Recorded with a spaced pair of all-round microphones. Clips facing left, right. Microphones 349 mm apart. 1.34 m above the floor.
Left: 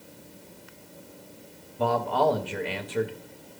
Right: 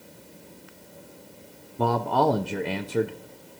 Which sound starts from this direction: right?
A man speaking, at 1.8 s.